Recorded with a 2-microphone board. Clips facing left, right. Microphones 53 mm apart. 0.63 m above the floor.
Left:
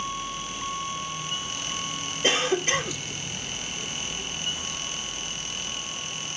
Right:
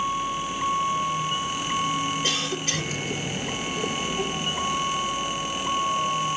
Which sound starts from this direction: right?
A vehicle, at 0.0 s.